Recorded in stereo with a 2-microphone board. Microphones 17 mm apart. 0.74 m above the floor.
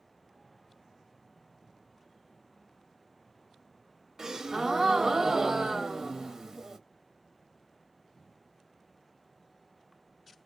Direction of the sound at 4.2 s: 40° right (ahead or behind).